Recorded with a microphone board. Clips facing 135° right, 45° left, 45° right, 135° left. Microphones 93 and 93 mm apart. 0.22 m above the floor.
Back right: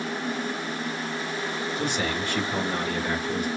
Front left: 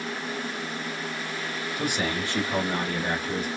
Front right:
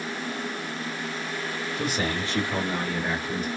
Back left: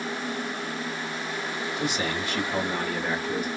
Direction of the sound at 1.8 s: 30° right.